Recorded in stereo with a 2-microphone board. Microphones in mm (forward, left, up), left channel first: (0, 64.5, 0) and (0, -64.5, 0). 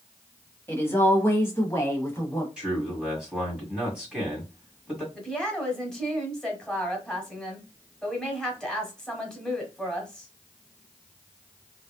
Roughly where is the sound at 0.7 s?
Centre.